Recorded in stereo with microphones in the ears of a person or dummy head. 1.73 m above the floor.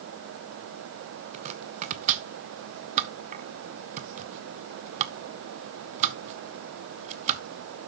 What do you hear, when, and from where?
1.3 s chopping: 40° right (ahead or behind), 0.8 m